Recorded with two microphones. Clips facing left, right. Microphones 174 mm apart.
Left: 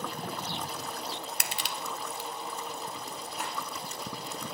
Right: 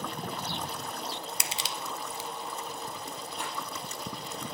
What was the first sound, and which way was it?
Crushing, 60° left (ahead or behind).